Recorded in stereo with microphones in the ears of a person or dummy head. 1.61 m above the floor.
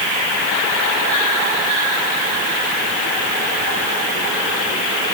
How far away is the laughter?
I don't hear laughter.